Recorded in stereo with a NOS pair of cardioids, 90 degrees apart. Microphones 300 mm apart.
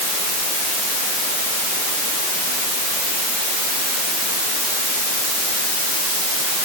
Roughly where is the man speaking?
I don't hear a man speaking.